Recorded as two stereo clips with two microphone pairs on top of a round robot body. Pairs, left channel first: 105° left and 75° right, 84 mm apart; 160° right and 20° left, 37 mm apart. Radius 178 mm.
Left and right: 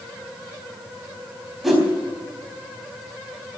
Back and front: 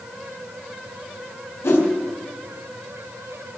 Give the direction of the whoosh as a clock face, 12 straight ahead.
5 o'clock.